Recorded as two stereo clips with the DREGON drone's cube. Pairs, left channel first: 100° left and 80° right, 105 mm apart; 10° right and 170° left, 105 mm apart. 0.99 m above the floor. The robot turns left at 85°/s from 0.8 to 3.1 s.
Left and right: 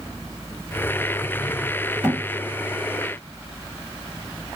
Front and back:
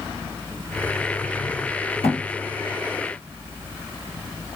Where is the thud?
Straight ahead, 1.3 m; by 2.2 s 15° right, 1.3 m.